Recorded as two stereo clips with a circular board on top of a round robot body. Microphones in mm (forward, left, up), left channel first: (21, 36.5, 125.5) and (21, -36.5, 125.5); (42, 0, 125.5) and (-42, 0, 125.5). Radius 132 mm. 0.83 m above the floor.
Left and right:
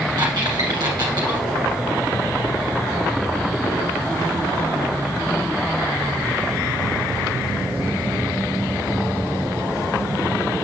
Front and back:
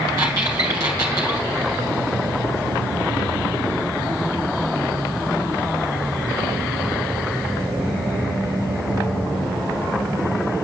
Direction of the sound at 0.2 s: 125° right.